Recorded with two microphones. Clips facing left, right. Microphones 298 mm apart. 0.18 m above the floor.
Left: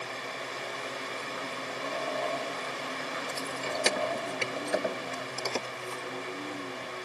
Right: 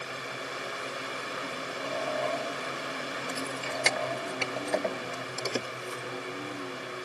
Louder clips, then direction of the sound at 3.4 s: Left 3 dB; 55° left (ahead or behind).